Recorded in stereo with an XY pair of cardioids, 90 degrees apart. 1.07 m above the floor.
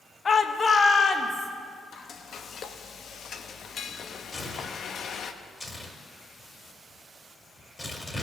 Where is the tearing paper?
15° left, 1.8 m.